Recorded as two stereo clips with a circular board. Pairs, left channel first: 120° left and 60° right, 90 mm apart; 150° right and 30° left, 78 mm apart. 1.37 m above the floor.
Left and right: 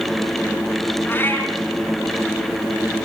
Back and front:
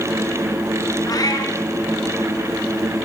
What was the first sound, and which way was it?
A cat meowing, 175° right.